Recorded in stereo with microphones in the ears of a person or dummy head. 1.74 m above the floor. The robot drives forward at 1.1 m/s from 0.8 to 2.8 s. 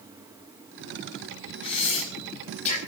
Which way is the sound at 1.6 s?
35° left (ahead or behind).